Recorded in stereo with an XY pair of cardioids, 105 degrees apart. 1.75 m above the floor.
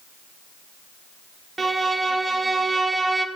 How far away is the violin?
About 0.7 m.